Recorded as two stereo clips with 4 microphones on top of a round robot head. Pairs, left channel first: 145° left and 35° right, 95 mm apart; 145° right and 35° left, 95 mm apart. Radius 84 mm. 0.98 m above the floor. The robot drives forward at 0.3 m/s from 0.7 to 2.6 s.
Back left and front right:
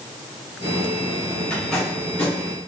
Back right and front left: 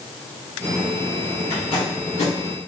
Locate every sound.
1.5 s tape being pulled: 145° right, 1.9 m; by 2.3 s 150° right, 2 m